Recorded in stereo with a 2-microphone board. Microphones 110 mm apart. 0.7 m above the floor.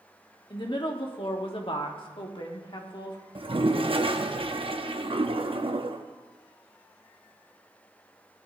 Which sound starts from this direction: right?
A toilet flushing, at 3.4 s.